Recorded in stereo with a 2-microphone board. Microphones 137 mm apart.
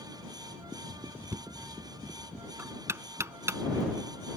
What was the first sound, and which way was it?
Knocking, 20° right (ahead or behind).